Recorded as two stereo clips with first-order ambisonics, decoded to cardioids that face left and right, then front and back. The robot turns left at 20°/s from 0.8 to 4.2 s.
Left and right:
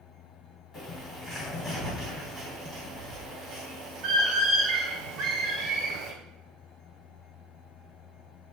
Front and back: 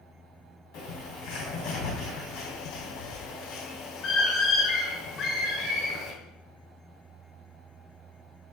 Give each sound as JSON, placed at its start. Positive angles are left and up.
{"t": 0.7, "sound": "a bird", "azimuth_deg": 15, "distance_m": 2.0}